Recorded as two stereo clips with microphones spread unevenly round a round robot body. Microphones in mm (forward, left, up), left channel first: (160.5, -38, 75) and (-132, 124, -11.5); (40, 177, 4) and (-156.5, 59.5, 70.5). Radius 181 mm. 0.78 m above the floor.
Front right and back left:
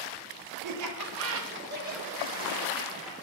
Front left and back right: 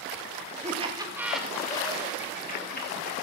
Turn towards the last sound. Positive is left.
turn(degrees=65)